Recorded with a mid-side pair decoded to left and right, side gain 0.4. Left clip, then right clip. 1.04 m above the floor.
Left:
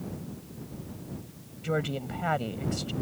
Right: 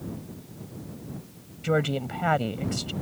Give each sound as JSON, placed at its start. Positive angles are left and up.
{"t": 1.6, "sound": "a woman speaking", "azimuth_deg": -35}